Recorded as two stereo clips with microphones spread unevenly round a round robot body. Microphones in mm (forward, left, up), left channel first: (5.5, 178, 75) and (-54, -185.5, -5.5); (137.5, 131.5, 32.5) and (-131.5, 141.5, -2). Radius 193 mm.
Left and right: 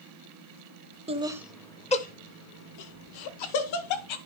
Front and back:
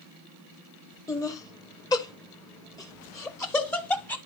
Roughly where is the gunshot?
I don't hear a gunshot.